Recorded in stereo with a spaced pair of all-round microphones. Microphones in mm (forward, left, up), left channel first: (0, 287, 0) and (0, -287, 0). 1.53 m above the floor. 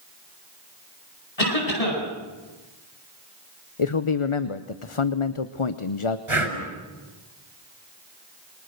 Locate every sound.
1.4 s a cough: 80° left, 10 m
3.8 s a man speaking: 60° left (ahead or behind), 0.9 m
6.3 s breathing: 60° right (ahead or behind), 4.5 m